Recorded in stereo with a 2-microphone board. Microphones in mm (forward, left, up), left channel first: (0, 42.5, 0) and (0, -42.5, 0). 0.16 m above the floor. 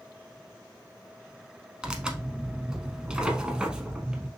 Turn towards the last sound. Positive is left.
turn(degrees=-10)  # may be behind; listen again after turning